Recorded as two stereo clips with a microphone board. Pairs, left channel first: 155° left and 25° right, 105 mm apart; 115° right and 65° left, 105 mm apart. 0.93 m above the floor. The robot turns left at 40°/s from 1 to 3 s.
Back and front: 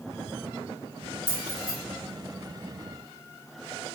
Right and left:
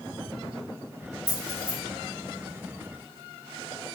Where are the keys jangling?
160° right, 1.4 m; by 1.7 s straight behind, 1.4 m.